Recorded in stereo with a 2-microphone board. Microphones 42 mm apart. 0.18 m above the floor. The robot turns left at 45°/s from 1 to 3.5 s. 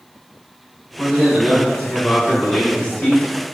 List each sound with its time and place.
1.0 s a man speaking: centre (ahead or behind), 1.1 m; by 3.5 s 25° left (ahead or behind), 1.1 m